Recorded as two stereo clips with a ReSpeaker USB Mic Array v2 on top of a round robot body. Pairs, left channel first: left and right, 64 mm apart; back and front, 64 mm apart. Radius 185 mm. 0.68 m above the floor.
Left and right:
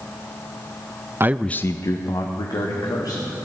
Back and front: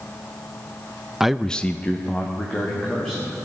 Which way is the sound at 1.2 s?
80° right.